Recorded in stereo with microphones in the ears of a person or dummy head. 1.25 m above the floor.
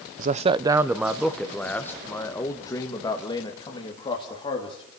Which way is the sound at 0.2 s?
40° right (ahead or behind).